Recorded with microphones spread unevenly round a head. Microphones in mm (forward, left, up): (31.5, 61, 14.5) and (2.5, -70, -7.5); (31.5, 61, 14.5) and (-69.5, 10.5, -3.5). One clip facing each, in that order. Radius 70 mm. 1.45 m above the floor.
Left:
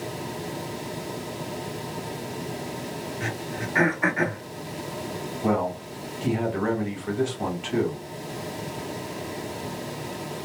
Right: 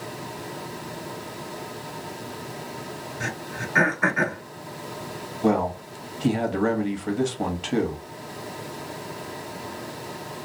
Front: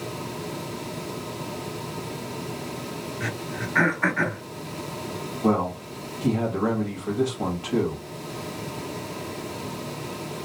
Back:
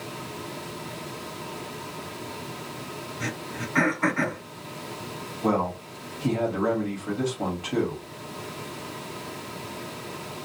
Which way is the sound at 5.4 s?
60° right.